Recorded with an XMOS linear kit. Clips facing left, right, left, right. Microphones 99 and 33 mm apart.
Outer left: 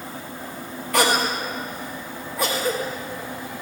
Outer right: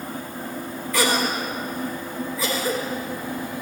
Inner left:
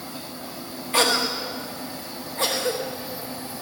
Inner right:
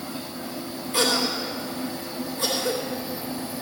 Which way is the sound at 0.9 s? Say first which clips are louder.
Outer left 2 dB, inner left 2 dB; 65° left (ahead or behind).